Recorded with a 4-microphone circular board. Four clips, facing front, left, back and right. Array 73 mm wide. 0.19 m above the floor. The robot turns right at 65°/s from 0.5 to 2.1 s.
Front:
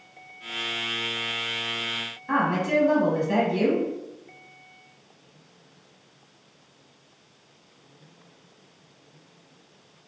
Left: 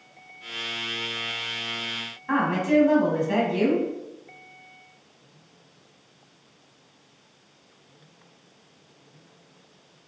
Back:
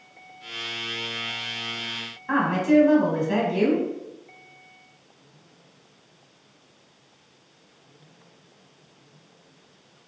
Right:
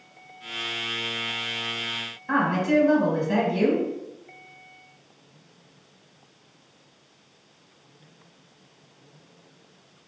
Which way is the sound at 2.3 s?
110° left.